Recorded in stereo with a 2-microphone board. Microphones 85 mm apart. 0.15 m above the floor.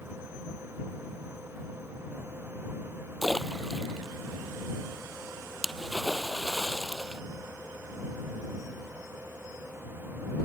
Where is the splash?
Centre (ahead or behind).